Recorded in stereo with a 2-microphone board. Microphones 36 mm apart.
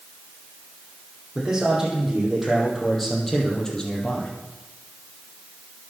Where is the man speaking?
15° right (ahead or behind), 5.5 m; by 4.3 s 30° left (ahead or behind), 3.5 m.